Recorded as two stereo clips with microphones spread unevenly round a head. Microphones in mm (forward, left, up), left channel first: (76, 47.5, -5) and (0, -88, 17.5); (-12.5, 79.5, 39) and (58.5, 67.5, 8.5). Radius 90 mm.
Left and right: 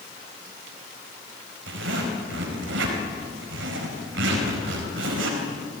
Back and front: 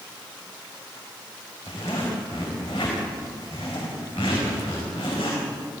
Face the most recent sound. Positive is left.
turn(degrees=-135)